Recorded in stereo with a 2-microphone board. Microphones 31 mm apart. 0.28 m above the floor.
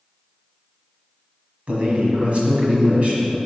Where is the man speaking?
45° right (ahead or behind), 1.5 m.